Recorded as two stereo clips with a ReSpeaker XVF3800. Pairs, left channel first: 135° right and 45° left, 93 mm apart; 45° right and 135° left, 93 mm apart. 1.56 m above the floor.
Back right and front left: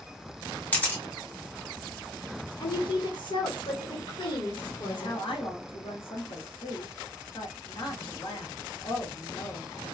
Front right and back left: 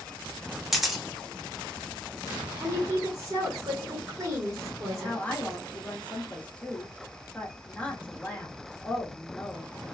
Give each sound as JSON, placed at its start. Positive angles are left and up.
{"t": 0.7, "sound": "a camera shutter", "azimuth_deg": -145, "distance_m": 1.0}
{"t": 2.6, "sound": "a woman speaking", "azimuth_deg": -165, "distance_m": 1.1}
{"t": 4.9, "sound": "a woman speaking", "azimuth_deg": -120, "distance_m": 1.1}